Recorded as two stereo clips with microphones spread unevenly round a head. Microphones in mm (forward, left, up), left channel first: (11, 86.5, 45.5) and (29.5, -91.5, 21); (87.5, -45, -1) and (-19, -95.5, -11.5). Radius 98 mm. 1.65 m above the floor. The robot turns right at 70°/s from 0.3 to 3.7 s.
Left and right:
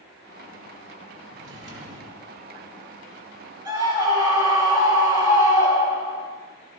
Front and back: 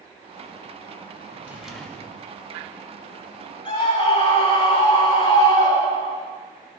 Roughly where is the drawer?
Right.